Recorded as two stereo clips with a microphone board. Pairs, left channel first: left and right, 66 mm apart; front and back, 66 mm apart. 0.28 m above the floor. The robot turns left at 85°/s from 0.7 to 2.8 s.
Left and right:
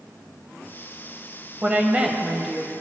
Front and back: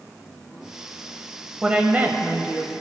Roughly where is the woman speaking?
Behind right.